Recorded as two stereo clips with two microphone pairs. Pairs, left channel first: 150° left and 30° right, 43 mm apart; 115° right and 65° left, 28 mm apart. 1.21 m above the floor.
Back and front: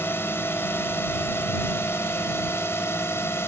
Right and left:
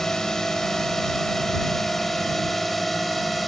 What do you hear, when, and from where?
0.0 s a drone: 175° left; by 3.5 s 160° left